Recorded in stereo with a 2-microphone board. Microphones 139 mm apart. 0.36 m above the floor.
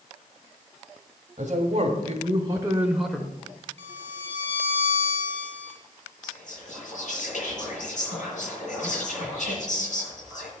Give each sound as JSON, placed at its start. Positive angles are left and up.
{"t": 1.4, "sound": "a man speaking", "side_deg": -60, "distance_m": 1.6}
{"t": 3.8, "sound": "a violin", "side_deg": -50, "distance_m": 2.0}
{"t": 6.2, "sound": "whispering", "side_deg": 65, "distance_m": 5.5}